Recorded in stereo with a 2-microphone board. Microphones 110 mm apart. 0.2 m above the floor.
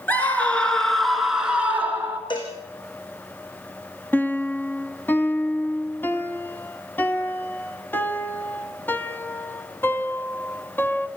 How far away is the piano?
About 1.1 m.